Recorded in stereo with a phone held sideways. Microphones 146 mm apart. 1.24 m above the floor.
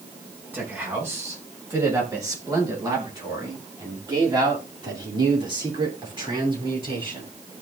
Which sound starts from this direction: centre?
A man speaking, at 0.5 s.